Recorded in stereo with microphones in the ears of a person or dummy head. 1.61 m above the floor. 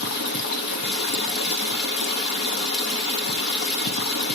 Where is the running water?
60° left (ahead or behind), 1.0 m.